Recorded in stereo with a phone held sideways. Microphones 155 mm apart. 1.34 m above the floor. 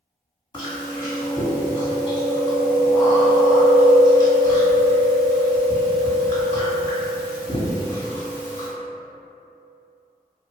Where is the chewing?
30° left (ahead or behind), 1.7 m.